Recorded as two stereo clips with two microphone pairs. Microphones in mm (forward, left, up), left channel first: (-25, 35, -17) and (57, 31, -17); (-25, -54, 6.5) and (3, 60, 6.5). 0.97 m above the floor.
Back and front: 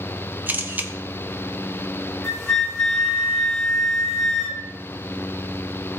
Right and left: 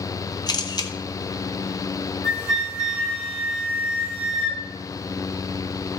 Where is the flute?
90° left, 2.5 m.